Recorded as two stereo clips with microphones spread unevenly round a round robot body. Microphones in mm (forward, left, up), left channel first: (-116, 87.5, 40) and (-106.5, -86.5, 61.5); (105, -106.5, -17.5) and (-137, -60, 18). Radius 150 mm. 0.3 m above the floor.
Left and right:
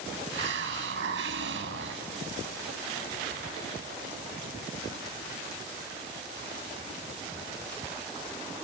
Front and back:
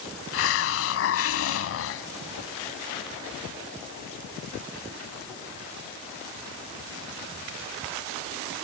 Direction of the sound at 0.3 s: 45° right.